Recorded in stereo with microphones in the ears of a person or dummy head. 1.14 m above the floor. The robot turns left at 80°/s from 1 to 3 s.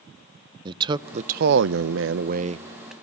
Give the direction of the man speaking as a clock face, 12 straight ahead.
1 o'clock.